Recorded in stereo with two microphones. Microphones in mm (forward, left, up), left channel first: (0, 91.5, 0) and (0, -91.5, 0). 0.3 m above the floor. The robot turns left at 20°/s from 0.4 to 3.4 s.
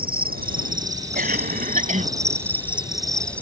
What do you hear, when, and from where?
0.0 s an insect: 125° right; by 3.4 s 175° left
1.1 s a cough: 50° right (ahead or behind); by 2.1 s 40° right (ahead or behind)